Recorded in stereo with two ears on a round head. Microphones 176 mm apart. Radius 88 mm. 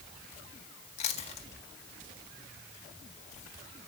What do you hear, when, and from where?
1.0 s chewing: 35° left (ahead or behind), 1.9 m